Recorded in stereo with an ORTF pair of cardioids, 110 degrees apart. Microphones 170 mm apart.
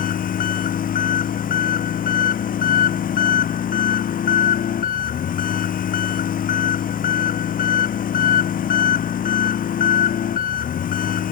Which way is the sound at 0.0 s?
55° left.